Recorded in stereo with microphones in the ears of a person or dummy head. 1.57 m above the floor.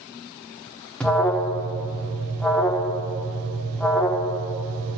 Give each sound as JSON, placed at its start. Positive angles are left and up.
{"t": 1.0, "sound": "an alarm", "side_deg": 10, "distance_m": 1.1}